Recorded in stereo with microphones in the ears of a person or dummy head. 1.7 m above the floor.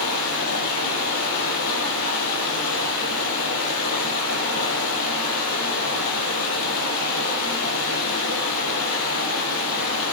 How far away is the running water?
About 9 m.